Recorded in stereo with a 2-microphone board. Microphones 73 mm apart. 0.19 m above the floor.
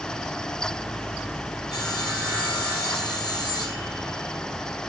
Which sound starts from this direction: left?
Sawing, at 1.7 s.